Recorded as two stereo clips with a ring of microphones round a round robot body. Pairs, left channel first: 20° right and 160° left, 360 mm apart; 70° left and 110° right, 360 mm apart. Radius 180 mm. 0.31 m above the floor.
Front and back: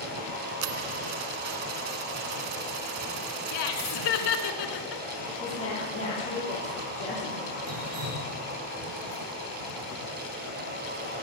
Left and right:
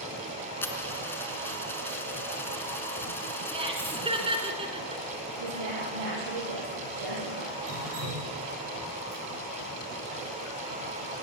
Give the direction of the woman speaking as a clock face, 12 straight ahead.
3 o'clock.